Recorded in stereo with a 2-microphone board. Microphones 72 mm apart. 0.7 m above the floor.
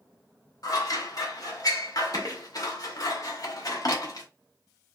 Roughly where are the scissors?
Left.